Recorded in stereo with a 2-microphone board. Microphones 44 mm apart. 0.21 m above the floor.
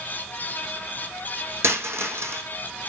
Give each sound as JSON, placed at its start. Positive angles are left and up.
{"t": 1.6, "sound": "a dropped coin", "side_deg": -75, "distance_m": 3.5}